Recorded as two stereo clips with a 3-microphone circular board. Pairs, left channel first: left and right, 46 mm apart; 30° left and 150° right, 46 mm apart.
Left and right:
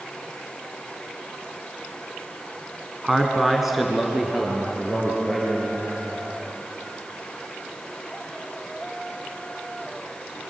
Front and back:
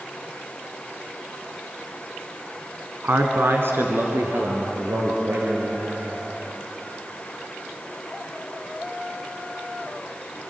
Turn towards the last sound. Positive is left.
turn(degrees=180)